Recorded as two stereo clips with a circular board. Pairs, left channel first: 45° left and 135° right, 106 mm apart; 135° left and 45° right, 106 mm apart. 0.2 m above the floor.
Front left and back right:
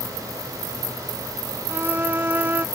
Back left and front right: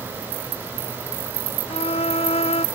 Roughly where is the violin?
Behind left.